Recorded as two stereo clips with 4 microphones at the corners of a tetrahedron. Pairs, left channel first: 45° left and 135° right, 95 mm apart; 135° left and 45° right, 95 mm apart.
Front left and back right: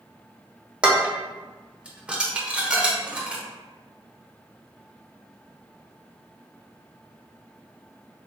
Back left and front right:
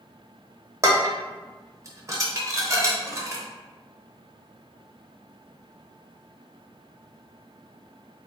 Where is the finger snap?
I don't hear a finger snap.